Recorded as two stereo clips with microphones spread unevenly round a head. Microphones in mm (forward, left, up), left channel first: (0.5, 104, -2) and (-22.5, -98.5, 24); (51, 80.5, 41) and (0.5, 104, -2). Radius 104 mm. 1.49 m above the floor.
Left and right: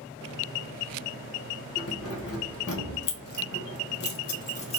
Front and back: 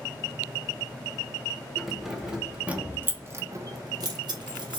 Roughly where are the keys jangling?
Ahead left.